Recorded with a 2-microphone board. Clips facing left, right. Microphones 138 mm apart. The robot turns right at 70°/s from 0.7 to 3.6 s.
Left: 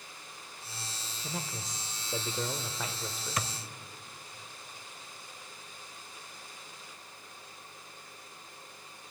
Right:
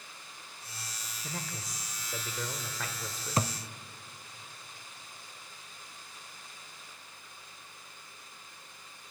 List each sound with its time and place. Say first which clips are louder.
1.2 s a man speaking: left 2 dB; 10° left (ahead or behind), 0.9 m; by 3.5 s centre (ahead or behind), 0.9 m
3.4 s a thud: right 6 dB; 30° right (ahead or behind), 0.6 m; by 3.5 s 40° right (ahead or behind), 0.6 m